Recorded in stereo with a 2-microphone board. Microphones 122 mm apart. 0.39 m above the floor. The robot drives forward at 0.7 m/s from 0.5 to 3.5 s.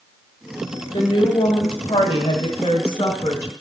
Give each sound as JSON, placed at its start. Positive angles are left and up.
{"t": 0.9, "sound": "a woman speaking", "side_deg": 40, "distance_m": 1.8}